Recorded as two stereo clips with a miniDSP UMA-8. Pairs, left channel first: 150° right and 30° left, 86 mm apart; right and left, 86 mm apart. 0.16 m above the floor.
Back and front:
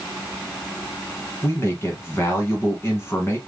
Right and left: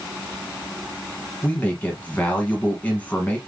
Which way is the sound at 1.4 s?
140° right.